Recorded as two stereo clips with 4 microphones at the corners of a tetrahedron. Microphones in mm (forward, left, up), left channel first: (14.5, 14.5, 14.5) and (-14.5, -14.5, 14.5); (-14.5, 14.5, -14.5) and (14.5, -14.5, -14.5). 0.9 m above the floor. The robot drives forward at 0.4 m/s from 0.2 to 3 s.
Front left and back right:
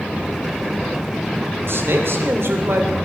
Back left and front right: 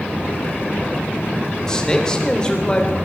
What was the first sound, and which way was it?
A man speaking, 150° right.